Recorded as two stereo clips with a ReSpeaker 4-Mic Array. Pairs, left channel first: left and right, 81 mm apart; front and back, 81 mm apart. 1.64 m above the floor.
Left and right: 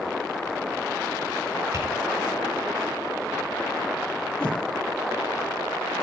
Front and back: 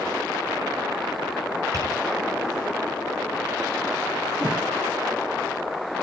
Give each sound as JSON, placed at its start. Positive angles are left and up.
{"t": 1.7, "sound": "tapping", "azimuth_deg": -140, "distance_m": 5.5}
{"t": 4.4, "sound": "a whoosh", "azimuth_deg": 165, "distance_m": 3.0}